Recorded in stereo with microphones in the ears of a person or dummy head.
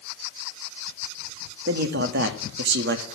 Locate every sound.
1.7 s a man speaking: 60° right (ahead or behind), 1.5 m